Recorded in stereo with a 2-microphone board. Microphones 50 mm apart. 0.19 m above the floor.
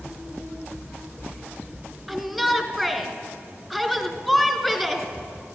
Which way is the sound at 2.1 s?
5° right (ahead or behind).